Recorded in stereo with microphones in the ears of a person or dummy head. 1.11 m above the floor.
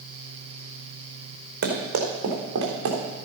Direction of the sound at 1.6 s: 60° right (ahead or behind).